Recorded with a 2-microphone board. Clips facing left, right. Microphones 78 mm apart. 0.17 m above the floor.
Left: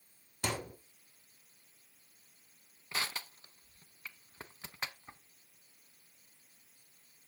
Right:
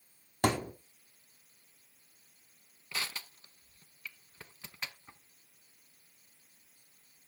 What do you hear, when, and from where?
0.4 s a thud: 50° right (ahead or behind), 4 m
2.9 s crushing: 30° left (ahead or behind), 0.9 m